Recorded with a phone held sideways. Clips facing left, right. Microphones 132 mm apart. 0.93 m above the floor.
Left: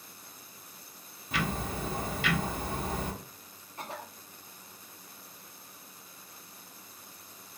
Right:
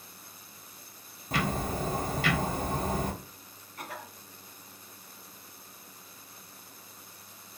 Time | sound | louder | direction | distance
1.3 | ticking | right 3 dB | 40° right (ahead or behind) | 0.7 m
3.8 | a cough | left 1 dB | 25° left (ahead or behind) | 0.8 m